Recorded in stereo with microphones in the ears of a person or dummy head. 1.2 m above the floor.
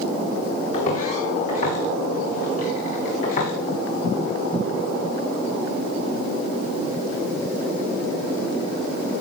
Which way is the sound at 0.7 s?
45° left (ahead or behind).